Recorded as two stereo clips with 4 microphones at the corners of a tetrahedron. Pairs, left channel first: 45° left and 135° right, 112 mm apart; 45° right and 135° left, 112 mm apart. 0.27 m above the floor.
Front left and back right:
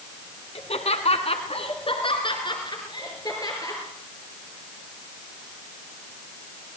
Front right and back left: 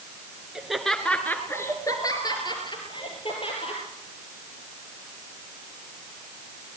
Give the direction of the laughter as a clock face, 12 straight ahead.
10 o'clock.